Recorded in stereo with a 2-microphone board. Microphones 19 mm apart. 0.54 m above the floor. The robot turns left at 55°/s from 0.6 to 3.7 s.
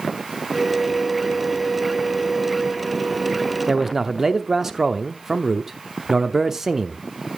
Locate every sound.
3.7 s a man speaking: 20° right (ahead or behind), 0.8 m; by 7.3 s 25° right (ahead or behind), 0.8 m